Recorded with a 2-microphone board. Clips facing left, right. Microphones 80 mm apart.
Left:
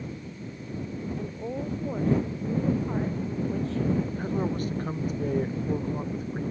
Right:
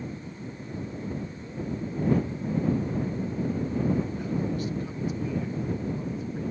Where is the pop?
No pop in this recording.